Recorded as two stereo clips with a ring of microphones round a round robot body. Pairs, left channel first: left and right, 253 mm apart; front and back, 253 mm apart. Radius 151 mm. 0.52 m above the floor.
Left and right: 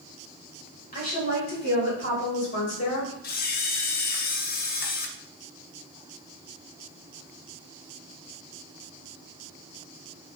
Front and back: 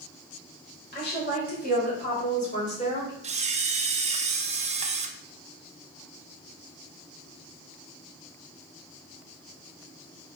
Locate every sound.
0.9 s a woman speaking: 40° left, 2 m; by 3.1 s 60° left, 2.5 m
3.2 s a camera shutter: 125° left, 0.6 m